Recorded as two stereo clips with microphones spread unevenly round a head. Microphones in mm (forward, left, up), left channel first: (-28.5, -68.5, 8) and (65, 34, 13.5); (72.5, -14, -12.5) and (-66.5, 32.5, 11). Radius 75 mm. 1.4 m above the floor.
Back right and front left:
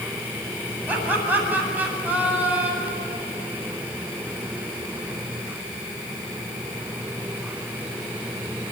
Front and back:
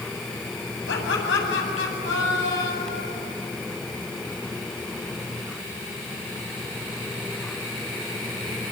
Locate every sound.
0.9 s laughter: 30° right, 9 m